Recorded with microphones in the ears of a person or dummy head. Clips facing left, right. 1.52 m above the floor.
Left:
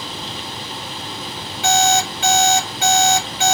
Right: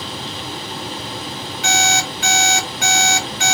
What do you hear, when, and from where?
1.6 s an alarm clock: 30° left (ahead or behind), 2 m